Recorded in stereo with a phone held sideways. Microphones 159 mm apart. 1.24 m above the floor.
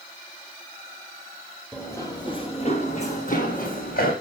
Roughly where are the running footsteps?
Centre.